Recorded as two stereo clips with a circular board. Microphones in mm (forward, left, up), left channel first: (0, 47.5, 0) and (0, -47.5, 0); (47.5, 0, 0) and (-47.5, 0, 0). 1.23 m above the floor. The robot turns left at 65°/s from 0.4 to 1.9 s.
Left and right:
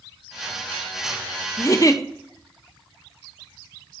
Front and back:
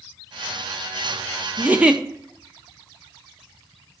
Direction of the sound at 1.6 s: 125° left.